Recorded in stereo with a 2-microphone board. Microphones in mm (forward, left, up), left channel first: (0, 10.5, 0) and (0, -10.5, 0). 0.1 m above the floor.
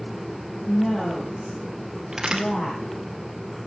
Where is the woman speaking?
60° left (ahead or behind), 5.5 m; by 3.0 s 50° left (ahead or behind), 7 m.